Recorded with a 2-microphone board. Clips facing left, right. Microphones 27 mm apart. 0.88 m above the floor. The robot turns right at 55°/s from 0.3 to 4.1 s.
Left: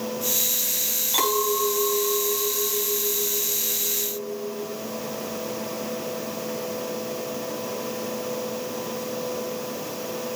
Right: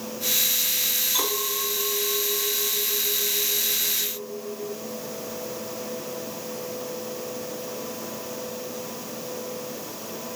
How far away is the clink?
About 4.5 m.